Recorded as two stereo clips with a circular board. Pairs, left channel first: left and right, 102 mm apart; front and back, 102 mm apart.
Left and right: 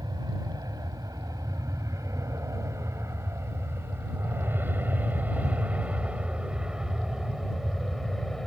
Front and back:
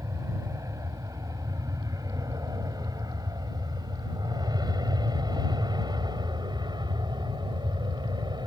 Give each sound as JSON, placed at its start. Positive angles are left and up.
{"t": 0.0, "sound": "an aircraft", "azimuth_deg": -130}